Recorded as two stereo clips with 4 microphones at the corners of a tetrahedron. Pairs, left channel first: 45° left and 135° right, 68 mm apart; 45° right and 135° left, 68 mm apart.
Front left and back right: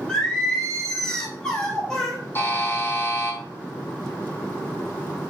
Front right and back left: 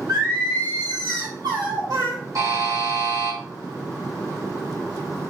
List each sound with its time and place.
0.1 s singing: 120° left, 3.5 m
2.4 s a buzzer: 105° left, 4.5 m